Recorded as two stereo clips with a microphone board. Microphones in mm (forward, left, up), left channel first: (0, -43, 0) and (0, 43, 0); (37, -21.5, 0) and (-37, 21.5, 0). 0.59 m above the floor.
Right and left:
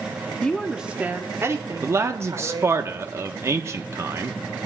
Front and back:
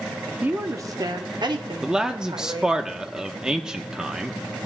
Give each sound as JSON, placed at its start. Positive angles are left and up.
{"t": 0.4, "sound": "a woman speaking", "azimuth_deg": -155, "distance_m": 0.6}
{"t": 1.8, "sound": "a man speaking", "azimuth_deg": 75, "distance_m": 0.6}